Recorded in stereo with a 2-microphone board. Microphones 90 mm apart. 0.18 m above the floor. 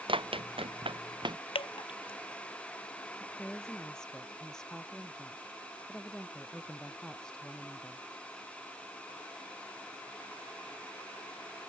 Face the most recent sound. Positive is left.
turn(degrees=5)  # may be behind; listen again after turning